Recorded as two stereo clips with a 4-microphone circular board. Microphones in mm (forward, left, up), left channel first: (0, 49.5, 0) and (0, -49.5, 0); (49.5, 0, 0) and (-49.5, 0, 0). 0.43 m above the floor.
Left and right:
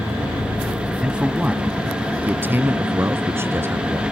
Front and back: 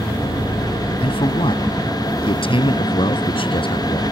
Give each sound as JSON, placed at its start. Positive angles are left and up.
{"t": 1.0, "sound": "a man speaking", "azimuth_deg": -10}